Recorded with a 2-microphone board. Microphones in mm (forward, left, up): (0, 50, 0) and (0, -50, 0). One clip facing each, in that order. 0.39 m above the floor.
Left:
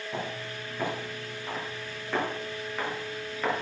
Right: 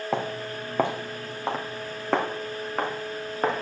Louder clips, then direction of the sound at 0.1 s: Right 7 dB; 80° right.